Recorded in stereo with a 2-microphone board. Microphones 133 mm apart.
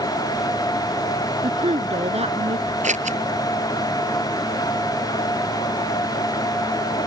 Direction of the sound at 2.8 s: 65° right (ahead or behind).